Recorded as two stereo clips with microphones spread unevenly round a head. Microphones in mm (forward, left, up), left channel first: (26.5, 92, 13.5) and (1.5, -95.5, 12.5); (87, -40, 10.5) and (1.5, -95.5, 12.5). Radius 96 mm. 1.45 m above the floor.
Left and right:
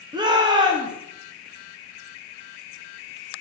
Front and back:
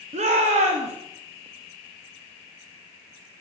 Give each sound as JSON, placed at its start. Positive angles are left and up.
{"t": 0.1, "sound": "a shout", "azimuth_deg": -165, "distance_m": 1.0}